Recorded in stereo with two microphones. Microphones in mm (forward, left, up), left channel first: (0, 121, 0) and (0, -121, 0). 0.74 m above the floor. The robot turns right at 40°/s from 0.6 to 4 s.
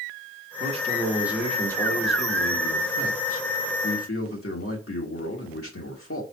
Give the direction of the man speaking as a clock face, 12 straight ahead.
1 o'clock.